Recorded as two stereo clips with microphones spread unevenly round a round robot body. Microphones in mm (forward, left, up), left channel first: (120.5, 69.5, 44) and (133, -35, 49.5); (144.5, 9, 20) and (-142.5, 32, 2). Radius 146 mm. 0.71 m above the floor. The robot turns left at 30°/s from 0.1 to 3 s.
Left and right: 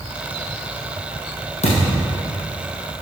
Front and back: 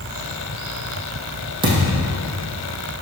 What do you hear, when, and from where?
1.6 s a thud: 100° left, 3.5 m; by 2.1 s 85° left, 3.5 m